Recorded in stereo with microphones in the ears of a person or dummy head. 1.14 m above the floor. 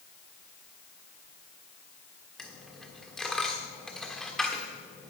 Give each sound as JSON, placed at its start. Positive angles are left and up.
{"t": 2.4, "sound": "a dropped coin", "side_deg": 0, "distance_m": 1.2}